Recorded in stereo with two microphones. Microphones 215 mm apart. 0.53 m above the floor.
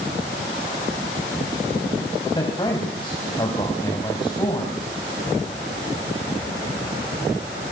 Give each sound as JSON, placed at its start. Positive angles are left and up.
{"t": 2.4, "sound": "a man speaking", "side_deg": 25, "distance_m": 3.5}